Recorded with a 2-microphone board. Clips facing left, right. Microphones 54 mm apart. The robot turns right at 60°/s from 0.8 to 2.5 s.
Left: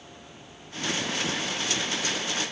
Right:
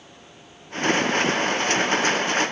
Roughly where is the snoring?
I don't hear snoring.